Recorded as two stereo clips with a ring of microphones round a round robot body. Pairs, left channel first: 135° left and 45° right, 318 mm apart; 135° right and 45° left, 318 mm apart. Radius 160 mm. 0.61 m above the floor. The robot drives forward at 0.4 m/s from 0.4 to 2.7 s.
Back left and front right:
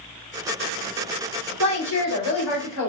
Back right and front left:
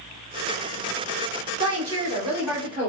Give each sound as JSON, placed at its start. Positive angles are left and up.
{"t": 1.6, "sound": "a woman speaking", "azimuth_deg": 125, "distance_m": 2.0}